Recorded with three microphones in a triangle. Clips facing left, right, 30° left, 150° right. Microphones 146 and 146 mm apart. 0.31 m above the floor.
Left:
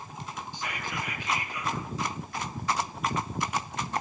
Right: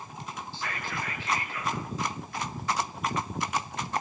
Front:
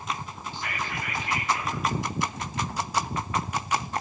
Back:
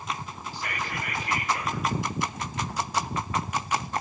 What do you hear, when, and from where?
0.5 s whispering: 165° left, 6 m